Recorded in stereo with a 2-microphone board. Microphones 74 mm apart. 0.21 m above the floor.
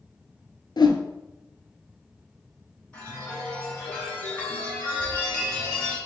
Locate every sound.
0.8 s a whoosh: 80° left, 0.5 m
2.9 s a chime: 15° left (ahead or behind), 2 m